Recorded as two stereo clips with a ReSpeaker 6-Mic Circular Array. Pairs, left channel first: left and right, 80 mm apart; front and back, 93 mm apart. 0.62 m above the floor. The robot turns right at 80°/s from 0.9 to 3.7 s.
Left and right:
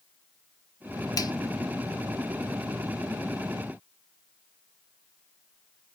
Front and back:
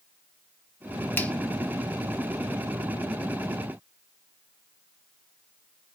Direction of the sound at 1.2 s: 65° left.